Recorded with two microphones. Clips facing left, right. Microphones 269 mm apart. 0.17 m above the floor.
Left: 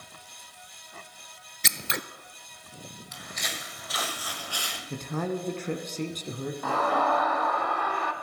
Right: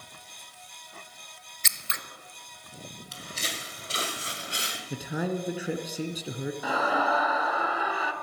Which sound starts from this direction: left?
Scissors, at 1.6 s.